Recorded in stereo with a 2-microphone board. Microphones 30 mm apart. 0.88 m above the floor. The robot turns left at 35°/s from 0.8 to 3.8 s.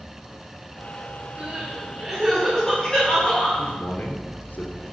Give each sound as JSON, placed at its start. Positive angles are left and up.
{"t": 1.4, "sound": "crying", "azimuth_deg": -140, "distance_m": 7.0}
{"t": 3.6, "sound": "a man speaking", "side_deg": 75, "distance_m": 2.5}